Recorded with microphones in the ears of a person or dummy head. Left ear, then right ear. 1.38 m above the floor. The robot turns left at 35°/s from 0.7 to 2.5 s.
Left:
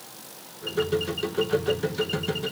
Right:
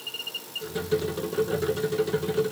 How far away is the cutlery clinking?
No cutlery clinking in this recording.